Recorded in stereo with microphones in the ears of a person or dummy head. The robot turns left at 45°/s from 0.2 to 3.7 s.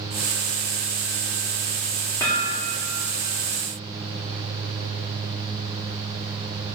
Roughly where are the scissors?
No scissors in this recording.